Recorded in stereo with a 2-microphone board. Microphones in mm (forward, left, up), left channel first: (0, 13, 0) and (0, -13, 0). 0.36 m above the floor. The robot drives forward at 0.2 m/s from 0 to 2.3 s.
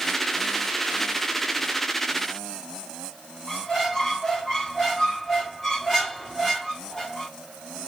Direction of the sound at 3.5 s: 15° left (ahead or behind).